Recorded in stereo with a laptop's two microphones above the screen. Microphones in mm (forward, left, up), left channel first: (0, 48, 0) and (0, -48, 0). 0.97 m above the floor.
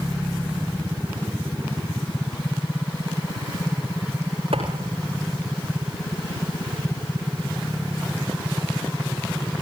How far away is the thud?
About 9.5 m.